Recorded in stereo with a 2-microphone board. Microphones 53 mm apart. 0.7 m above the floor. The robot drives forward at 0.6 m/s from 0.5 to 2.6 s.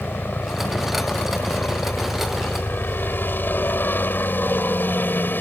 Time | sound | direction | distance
0.0 | a helicopter | 35° left (ahead or behind) | ?